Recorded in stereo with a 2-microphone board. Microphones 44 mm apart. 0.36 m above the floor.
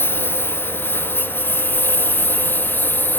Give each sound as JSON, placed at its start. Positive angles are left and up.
{"t": 0.0, "sound": "a lawn mower", "side_deg": 55}